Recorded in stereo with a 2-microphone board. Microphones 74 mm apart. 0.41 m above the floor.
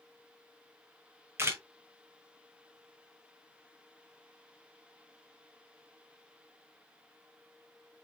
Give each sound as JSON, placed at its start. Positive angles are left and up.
{"t": 1.4, "sound": "a camera shutter", "side_deg": -35, "distance_m": 1.2}